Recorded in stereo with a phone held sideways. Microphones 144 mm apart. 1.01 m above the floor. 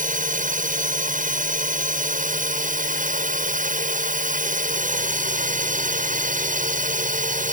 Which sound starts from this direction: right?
A drone, at 0.0 s.